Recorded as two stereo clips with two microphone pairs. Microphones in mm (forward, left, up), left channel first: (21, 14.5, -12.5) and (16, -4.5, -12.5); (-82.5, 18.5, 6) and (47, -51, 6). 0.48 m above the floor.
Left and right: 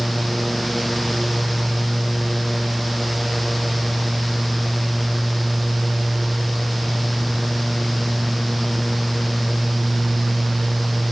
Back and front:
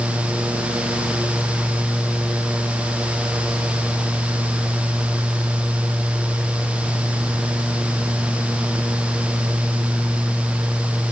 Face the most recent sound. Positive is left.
No sound to turn to.